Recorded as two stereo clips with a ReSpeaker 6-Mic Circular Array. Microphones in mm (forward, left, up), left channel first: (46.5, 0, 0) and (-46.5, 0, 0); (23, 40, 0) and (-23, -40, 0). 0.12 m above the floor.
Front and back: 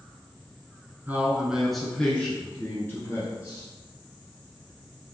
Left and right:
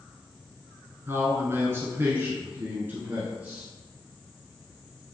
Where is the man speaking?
140° right, 1.1 m; by 3.6 s 50° right, 2 m.